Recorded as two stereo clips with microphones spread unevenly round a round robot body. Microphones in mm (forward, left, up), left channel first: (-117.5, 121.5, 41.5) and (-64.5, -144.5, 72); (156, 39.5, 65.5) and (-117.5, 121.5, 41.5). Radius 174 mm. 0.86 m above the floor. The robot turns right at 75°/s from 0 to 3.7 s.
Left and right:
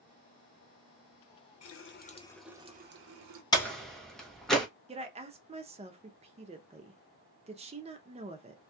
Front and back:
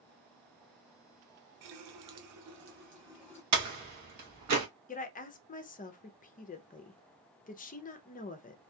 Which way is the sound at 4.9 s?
30° right.